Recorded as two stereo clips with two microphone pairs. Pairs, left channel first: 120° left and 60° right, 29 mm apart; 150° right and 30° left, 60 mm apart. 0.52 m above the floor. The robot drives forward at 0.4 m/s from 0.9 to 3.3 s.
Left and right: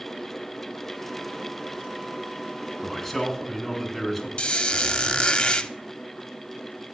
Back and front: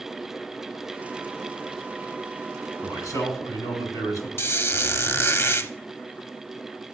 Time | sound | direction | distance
2.8 | a man speaking | 165° right | 3 m
4.4 | a squeak | 170° left | 0.6 m